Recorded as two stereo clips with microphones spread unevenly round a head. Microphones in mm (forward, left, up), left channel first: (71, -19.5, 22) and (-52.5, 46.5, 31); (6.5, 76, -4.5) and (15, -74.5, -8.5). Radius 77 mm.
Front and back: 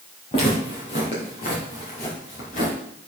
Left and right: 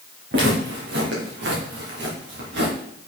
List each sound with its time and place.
0.3 s footsteps: 85° right, 3 m; by 2.7 s 70° right, 4.5 m